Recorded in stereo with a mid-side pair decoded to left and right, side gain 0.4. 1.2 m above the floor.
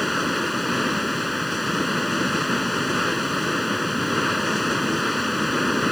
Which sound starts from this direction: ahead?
Running water, at 0.0 s.